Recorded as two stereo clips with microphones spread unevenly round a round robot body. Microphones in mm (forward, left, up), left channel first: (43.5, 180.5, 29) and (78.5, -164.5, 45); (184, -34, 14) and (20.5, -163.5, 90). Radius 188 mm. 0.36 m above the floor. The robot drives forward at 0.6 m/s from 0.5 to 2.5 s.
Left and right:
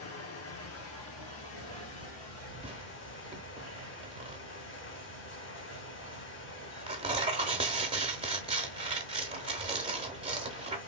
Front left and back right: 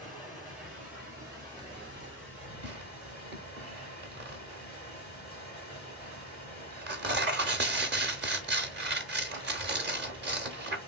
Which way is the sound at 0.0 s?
100° left.